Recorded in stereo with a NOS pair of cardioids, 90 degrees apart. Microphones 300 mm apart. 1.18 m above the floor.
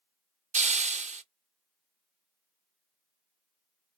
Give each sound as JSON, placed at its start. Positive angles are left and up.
{"t": 0.5, "sound": "a hiss", "azimuth_deg": -25, "distance_m": 0.5}